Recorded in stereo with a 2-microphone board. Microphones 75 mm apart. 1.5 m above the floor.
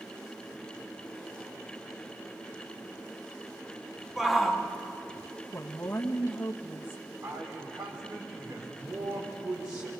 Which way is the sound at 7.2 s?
50° right (ahead or behind).